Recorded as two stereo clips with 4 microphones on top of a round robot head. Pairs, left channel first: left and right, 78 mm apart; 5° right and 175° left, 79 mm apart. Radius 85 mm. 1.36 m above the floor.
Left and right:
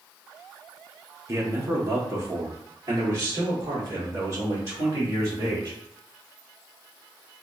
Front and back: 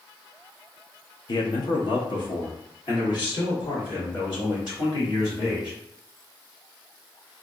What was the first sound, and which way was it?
A man speaking, 35° right.